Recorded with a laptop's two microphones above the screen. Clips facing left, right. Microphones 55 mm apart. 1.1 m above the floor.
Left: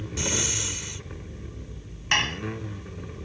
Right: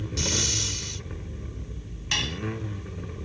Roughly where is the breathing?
Centre.